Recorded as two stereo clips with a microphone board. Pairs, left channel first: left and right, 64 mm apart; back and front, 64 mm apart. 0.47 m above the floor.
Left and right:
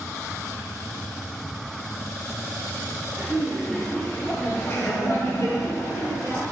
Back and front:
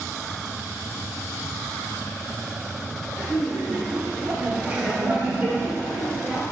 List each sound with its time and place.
3.2 s laughter: 75° right, 0.9 m; by 6.4 s 80° left, 2.5 m